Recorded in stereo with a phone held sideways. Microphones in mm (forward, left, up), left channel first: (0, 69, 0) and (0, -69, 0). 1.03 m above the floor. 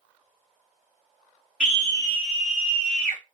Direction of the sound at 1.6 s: 10° right (ahead or behind).